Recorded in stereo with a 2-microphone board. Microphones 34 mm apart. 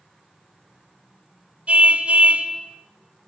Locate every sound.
1.7 s a car horn: 40° right (ahead or behind), 3 m